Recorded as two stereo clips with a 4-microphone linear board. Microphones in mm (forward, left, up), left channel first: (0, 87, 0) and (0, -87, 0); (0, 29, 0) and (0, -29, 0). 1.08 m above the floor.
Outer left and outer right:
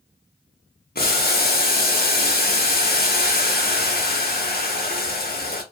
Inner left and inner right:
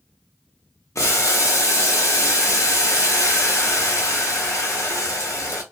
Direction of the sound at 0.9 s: 65° left (ahead or behind).